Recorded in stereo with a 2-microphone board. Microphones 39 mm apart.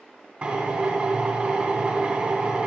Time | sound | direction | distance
0.4 | a drill | 30° right (ahead or behind) | 3 m